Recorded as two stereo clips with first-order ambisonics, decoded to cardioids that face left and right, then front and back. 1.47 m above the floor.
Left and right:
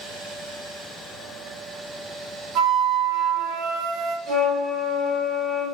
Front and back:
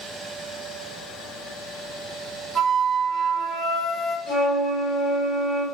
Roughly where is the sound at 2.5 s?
Right.